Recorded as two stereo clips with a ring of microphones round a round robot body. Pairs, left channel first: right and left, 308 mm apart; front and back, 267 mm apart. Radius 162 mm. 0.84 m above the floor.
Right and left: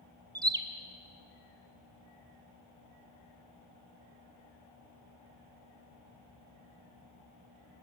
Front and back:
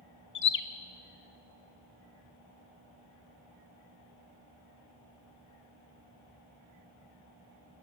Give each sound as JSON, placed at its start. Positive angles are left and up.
{"t": 0.3, "sound": "a bird", "azimuth_deg": 15, "distance_m": 1.0}